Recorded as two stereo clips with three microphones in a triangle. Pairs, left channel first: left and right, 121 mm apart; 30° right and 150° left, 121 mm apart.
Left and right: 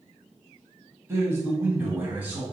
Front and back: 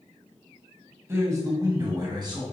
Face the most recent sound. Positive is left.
turn(degrees=-165)